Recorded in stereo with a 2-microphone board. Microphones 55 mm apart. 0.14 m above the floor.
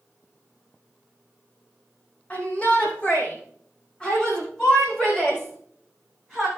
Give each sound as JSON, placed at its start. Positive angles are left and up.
{"t": 2.3, "sound": "a shout", "side_deg": 25, "distance_m": 6.5}